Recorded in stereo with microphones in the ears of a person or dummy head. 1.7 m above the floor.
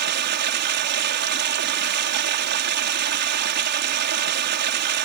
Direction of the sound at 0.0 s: 65° right (ahead or behind).